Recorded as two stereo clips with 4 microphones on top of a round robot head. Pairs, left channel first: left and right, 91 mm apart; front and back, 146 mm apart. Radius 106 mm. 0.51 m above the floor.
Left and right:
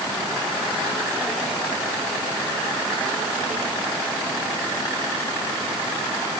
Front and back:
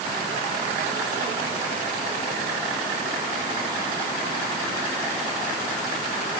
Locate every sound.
Only background noise.